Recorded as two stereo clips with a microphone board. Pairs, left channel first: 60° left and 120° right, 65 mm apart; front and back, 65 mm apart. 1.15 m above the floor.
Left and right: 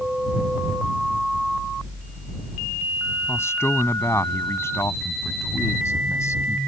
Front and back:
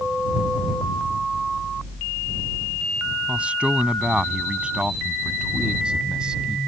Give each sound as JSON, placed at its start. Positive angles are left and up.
{"t": 3.3, "sound": "a man speaking", "azimuth_deg": 110}